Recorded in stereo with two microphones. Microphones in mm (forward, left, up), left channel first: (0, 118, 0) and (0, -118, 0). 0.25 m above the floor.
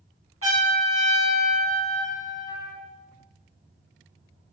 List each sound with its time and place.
0.4 s a trumpet: 70° right (ahead or behind), 2 m